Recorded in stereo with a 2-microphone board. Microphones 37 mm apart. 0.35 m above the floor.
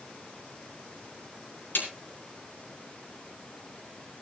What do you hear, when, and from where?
1.8 s a snare drum: 75° left (ahead or behind), 4.5 m